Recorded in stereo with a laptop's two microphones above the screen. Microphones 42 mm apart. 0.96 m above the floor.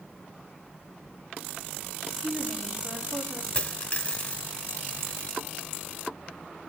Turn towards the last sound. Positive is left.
turn(degrees=25)  # may be behind; listen again after turning